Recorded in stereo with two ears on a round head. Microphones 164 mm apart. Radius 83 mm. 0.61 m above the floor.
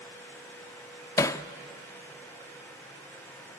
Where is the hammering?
15° left (ahead or behind), 0.6 m.